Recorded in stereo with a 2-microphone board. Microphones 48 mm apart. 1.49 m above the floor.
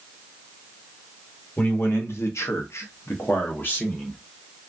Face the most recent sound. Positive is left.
turn(degrees=35)  # may be behind; listen again after turning